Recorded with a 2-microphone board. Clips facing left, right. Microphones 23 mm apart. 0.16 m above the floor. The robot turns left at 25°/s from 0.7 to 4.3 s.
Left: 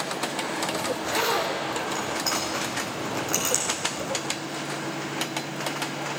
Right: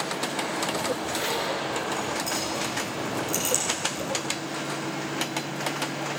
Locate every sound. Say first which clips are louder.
0.9 s a zipper: left 3 dB; 80° left, 5.5 m; by 4.2 s 15° left (ahead or behind), 5.5 m